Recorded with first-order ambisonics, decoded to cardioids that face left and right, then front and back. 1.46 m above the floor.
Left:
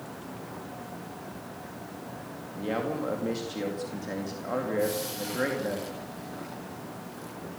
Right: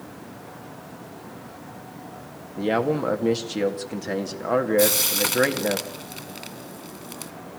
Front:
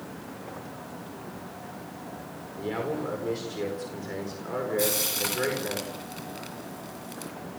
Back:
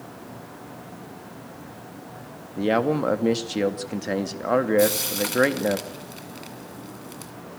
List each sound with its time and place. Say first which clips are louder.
2.6 s a man speaking: right 8 dB, back 9 dB; 150° right, 2 m
4.8 s frying: right 9 dB, back 5 dB; 95° right, 2 m